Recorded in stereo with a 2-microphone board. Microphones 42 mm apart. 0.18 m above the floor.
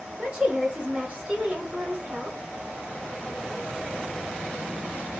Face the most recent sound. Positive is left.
turn(degrees=-20)  # may be behind; listen again after turning